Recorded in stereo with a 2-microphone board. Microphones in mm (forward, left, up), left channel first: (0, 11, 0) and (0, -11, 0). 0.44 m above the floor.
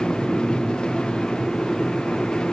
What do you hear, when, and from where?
Only background noise.